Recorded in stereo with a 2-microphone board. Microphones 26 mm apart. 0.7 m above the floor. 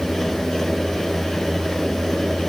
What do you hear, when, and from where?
Only background noise.